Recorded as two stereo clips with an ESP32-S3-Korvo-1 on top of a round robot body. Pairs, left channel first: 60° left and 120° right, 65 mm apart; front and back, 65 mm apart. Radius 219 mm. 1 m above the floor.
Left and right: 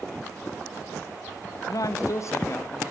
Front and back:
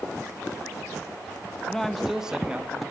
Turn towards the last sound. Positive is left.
turn(degrees=115)